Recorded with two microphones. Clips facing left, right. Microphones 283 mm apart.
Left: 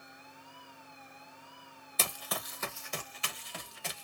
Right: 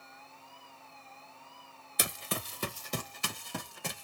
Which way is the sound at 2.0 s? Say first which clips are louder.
Right 3 dB; 15° right (ahead or behind).